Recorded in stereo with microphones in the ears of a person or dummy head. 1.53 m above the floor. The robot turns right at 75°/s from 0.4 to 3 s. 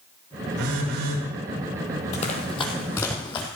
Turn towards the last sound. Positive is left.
turn(degrees=25)  # may be behind; listen again after turning